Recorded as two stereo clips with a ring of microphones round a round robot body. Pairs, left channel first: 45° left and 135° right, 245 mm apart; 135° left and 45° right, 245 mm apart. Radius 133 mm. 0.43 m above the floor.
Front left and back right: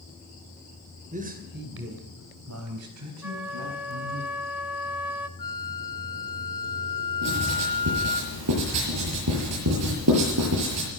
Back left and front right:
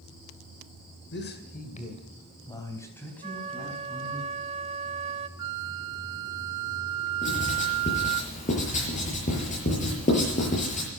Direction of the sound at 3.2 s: 60° right.